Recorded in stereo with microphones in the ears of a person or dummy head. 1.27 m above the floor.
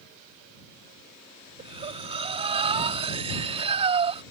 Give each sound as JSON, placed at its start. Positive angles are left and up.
{"t": 1.6, "sound": "breathing", "side_deg": -30}